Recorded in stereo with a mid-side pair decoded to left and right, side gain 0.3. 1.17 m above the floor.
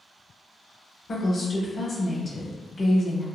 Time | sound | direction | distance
1.1 | a woman speaking | 45° left | 1.0 m